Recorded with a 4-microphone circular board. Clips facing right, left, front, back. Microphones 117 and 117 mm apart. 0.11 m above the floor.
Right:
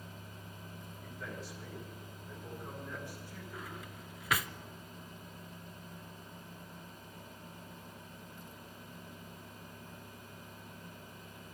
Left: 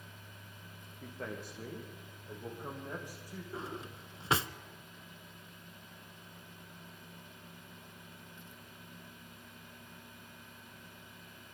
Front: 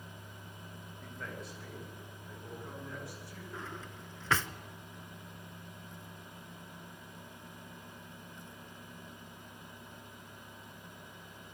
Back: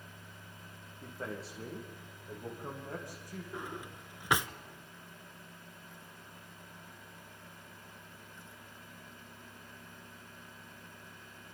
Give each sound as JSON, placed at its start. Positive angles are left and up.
{"t": 1.0, "sound": "a man speaking", "azimuth_deg": 120, "distance_m": 7.0}
{"t": 3.5, "sound": "a drawer", "azimuth_deg": 115, "distance_m": 0.7}